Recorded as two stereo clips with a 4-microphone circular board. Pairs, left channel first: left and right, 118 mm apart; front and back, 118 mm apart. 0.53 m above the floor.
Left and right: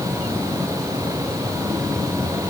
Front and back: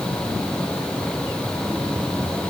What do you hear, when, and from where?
Only background noise.